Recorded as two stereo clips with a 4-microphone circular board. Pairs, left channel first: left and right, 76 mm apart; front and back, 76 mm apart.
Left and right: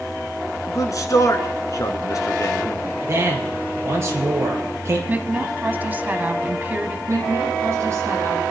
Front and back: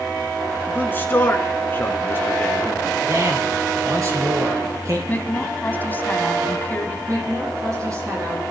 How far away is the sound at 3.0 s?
About 4.5 m.